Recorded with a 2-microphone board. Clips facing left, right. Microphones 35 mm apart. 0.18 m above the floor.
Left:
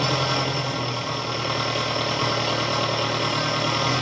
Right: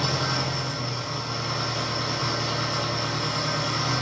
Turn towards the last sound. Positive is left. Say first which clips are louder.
# left 4 dB
turn(degrees=60)  # may be behind; listen again after turning